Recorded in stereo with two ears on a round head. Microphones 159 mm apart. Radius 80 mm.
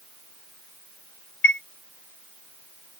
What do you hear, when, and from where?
1.4 s a chime: 65° left (ahead or behind)